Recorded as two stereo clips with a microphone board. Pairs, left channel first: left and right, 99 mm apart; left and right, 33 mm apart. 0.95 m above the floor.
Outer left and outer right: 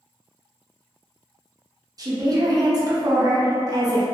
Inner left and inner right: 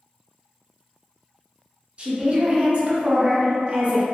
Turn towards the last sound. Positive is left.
turn(degrees=-40)  # may be behind; listen again after turning